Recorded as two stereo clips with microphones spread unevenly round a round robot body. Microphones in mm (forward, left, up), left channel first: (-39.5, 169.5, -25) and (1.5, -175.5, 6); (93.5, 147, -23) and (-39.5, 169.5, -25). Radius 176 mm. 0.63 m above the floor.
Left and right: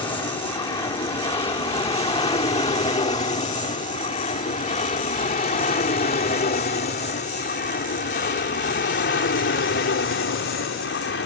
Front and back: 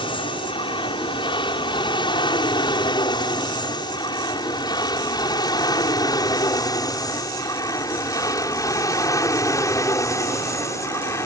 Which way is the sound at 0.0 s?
20° left.